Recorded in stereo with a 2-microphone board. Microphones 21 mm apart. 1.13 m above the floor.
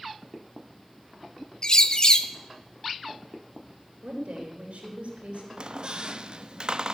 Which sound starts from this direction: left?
A bird, at 1.6 s.